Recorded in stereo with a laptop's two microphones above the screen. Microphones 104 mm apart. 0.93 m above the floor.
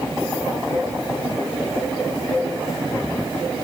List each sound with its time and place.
Only background noise.